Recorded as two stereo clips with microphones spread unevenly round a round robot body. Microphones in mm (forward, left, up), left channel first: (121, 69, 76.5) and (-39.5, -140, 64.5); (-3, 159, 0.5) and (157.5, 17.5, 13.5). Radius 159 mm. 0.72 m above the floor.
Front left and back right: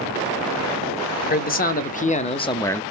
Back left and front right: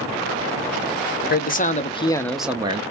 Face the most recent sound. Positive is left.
turn(degrees=-30)